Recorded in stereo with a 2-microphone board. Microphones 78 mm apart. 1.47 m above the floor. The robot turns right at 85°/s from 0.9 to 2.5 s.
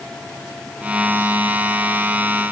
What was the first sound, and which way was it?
Only background noise.